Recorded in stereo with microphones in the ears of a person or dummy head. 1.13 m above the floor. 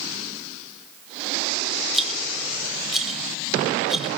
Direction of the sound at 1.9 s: Centre (ahead or behind).